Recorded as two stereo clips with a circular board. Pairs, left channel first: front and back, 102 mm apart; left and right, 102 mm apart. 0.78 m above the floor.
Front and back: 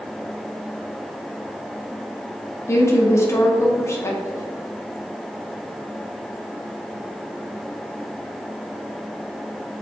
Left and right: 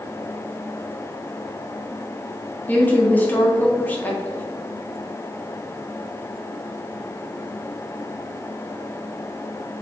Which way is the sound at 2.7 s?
35° left.